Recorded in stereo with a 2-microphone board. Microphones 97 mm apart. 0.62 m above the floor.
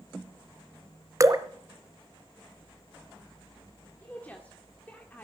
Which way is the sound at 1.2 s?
35° right (ahead or behind).